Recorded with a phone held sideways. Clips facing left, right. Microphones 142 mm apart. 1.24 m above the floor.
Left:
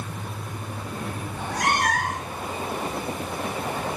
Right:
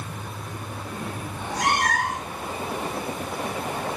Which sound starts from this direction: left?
A cat meowing, at 1.3 s.